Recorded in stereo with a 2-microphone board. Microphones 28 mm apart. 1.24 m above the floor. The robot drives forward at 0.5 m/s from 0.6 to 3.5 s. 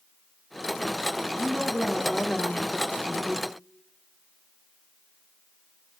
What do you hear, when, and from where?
1.4 s a woman speaking: 40° left (ahead or behind), 1.1 m; by 3.5 s 70° left (ahead or behind), 0.7 m